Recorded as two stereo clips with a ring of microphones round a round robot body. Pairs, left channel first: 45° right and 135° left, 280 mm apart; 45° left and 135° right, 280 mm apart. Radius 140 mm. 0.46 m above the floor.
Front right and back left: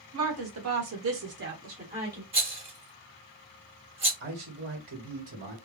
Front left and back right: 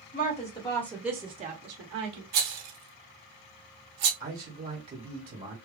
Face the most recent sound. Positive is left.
turn(degrees=170)